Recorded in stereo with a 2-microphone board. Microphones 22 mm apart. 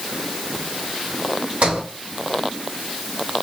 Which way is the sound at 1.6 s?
70° right (ahead or behind).